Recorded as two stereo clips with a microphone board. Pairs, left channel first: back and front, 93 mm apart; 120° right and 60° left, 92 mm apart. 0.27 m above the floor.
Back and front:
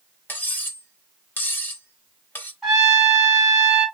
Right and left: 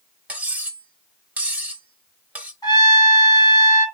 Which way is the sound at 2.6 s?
80° right.